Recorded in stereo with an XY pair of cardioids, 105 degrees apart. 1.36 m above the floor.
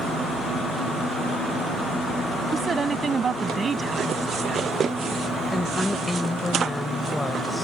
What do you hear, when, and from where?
2.5 s a woman speaking: 40° right
5.5 s a woman speaking: 15° left